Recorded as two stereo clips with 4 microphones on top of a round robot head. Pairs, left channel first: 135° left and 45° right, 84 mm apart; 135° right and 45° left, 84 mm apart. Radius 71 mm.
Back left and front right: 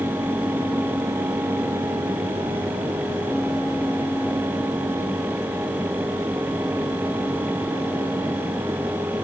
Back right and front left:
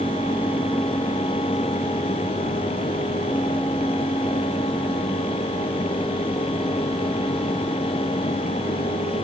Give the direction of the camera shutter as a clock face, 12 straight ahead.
I don't hear a camera shutter.